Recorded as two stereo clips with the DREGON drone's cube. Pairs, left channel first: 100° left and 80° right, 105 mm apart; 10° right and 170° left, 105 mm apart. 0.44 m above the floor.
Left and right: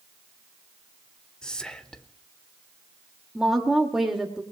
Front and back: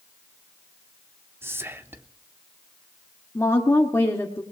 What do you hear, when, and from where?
1.4 s whispering: 170° left, 0.8 m
3.4 s a woman speaking: straight ahead, 1.4 m